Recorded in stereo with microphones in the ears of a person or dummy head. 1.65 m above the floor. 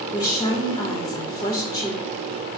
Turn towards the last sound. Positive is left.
turn(degrees=25)  # may be behind; listen again after turning